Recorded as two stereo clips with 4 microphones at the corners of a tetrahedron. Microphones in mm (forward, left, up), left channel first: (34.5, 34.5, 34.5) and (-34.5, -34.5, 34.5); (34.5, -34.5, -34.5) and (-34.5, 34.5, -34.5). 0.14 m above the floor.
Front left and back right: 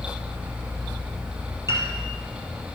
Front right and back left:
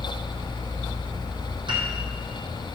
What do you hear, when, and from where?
1.7 s a piano: 165° left, 2.5 m